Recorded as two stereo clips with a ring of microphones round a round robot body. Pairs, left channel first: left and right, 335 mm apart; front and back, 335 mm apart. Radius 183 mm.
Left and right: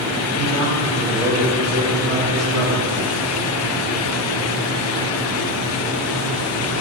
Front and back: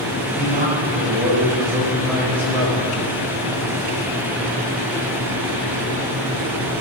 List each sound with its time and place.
0.4 s a man speaking: 120° right, 3 m; by 2.9 s 75° right, 2.5 m